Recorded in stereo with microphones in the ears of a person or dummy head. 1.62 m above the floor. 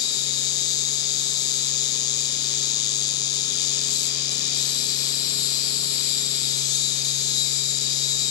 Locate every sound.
0.0 s an insect: 20° left (ahead or behind), 1.0 m